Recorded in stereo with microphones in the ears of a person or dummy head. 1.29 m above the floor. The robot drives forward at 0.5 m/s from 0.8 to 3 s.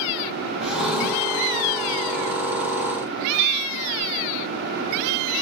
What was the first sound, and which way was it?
A drawer, centre (ahead or behind).